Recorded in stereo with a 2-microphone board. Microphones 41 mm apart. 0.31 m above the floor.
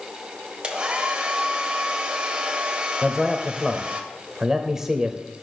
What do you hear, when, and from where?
0.6 s a hair dryer: 25° right (ahead or behind), 1.3 m
3.0 s a man speaking: 10° right (ahead or behind), 0.9 m